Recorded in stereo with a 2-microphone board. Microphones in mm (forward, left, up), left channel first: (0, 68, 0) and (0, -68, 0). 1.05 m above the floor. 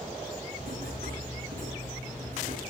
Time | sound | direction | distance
0.6 | writing | 90° right | 9 m